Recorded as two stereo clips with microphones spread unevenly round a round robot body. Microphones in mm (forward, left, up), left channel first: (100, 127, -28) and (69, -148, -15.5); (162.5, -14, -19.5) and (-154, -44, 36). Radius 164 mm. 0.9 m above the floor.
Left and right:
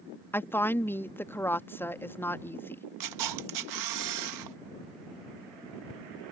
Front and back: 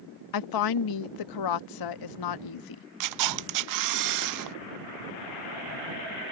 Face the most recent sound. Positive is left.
turn(degrees=-135)